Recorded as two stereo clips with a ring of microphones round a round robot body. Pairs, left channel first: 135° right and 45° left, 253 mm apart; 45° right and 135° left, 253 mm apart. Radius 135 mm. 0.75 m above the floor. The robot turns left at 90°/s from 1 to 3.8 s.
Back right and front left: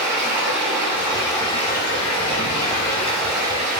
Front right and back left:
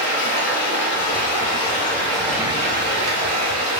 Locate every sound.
0.0 s running water: 15° right, 4 m; by 3.8 s 90° left, 4 m